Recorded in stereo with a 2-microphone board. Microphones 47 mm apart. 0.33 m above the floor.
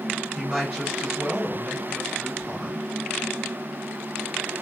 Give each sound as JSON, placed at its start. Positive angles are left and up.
{"t": 0.3, "sound": "a woman speaking", "side_deg": -5, "distance_m": 1.6}